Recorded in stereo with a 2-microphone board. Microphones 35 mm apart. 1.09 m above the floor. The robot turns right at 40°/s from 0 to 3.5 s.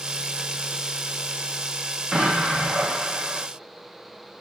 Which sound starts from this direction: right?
An explosion, at 2.1 s.